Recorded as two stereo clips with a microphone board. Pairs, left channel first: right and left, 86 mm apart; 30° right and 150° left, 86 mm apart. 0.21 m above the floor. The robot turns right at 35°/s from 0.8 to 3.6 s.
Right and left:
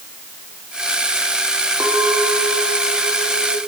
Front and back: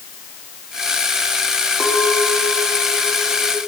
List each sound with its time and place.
1.8 s a clink: 30° left, 7.5 m; by 3.6 s 95° left, 7.5 m